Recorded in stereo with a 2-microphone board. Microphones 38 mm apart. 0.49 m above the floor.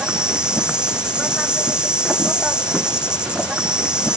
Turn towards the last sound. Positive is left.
turn(degrees=-25)  # may be behind; listen again after turning